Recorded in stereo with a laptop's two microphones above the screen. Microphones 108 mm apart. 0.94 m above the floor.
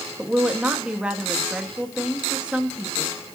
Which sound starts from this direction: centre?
A woman speaking, at 0.2 s.